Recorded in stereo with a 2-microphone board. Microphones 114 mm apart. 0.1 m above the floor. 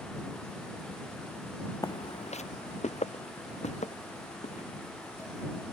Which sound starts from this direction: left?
Footsteps, at 1.8 s.